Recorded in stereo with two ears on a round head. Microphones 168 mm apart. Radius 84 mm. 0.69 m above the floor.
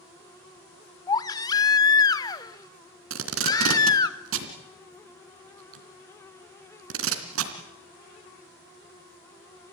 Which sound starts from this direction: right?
Tape being pulled, at 3.1 s.